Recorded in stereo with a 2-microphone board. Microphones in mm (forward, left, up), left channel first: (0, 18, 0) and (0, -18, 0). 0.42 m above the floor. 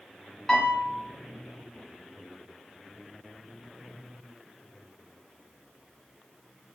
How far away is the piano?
About 0.9 m.